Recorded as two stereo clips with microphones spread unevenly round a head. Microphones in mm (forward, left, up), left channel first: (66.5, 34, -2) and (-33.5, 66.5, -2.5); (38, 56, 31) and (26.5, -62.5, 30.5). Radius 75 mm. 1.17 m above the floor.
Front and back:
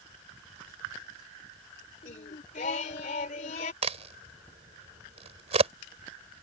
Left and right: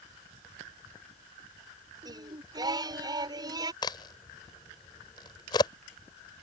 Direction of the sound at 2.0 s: 40° right.